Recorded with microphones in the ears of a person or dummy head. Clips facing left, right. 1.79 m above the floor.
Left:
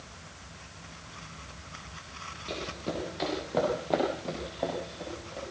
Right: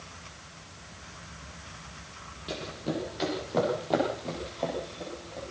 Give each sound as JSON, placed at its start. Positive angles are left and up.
{"t": 2.5, "sound": "running footsteps", "side_deg": -10, "distance_m": 4.5}